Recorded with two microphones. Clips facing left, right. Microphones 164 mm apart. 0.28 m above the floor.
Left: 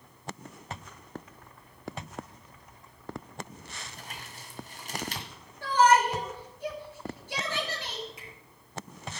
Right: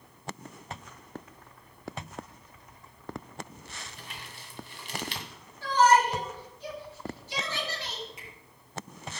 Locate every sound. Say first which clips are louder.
3.8 s crumpling: left 1 dB; 45° left (ahead or behind), 2 m
5.6 s a shout: even; 50° left (ahead or behind), 5.5 m
8.2 s a finger snap: left 1 dB; centre (ahead or behind), 6 m